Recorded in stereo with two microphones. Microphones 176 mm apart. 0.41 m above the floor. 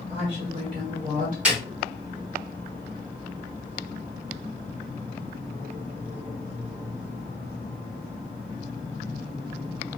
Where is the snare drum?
5° right (ahead or behind), 1.7 m.